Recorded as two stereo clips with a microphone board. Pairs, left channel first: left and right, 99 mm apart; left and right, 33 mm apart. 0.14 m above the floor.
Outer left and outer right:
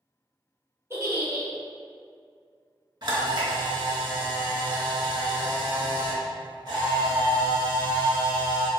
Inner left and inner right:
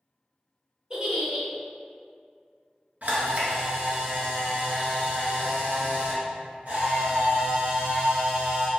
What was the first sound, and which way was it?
A giggle, 30° right (ahead or behind).